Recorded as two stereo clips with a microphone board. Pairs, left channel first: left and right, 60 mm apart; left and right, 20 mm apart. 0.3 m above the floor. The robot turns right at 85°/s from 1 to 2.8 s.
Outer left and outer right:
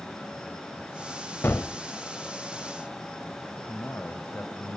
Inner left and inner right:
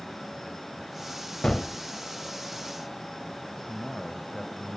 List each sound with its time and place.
1.4 s a gunshot: 35° left (ahead or behind), 0.7 m; by 1.7 s 40° left (ahead or behind), 0.7 m
3.7 s a man speaking: 35° left (ahead or behind), 1.4 m